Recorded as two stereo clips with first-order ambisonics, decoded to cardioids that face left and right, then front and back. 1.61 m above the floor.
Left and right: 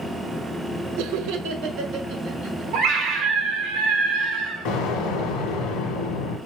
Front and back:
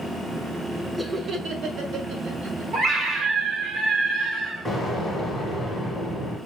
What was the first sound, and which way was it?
Laughter, 90° right.